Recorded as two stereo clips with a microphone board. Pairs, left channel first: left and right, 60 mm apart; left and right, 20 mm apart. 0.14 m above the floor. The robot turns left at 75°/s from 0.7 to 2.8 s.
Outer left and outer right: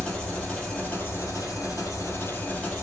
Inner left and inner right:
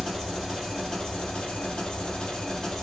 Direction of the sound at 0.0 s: 160° left.